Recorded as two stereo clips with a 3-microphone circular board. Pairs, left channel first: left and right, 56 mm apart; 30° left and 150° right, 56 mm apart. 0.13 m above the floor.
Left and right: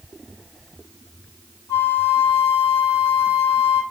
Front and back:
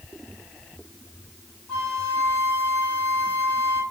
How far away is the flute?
About 2.5 m.